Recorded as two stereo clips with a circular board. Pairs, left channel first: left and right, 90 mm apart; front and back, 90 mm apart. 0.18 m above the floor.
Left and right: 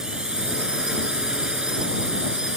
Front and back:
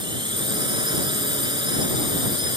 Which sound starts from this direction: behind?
A drone, at 0.0 s.